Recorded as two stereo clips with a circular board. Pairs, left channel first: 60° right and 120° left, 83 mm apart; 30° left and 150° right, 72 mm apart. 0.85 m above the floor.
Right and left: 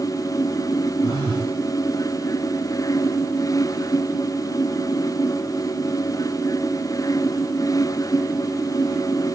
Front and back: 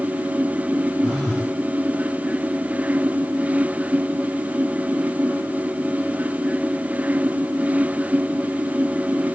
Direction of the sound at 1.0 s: 110° left.